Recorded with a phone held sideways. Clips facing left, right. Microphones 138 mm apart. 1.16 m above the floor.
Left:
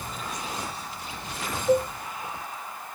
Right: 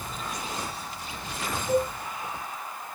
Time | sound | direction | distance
1.7 | a cowbell | 55° left (ahead or behind) | 2.5 m